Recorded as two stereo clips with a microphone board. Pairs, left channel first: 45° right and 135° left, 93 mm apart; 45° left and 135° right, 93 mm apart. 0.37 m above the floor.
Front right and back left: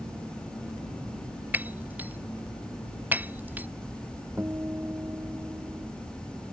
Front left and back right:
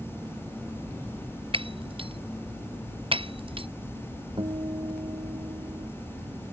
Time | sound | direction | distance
1.5 | breaking glass | 155° right | ?
4.4 | a guitar | 160° right | ?